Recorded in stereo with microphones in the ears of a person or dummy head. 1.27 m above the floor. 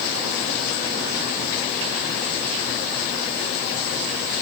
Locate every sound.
Only background noise.